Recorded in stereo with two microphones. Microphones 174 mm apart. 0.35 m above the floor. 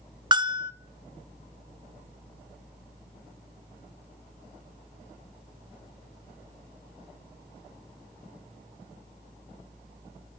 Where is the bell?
25° right (ahead or behind), 0.6 m.